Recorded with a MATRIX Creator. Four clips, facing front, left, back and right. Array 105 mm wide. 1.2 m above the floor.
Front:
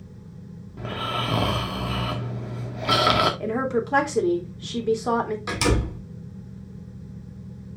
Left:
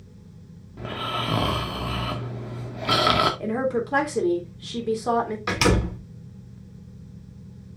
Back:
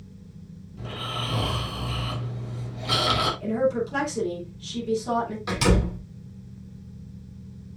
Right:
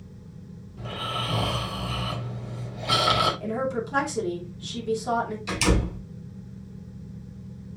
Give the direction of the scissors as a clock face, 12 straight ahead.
No scissors in this recording.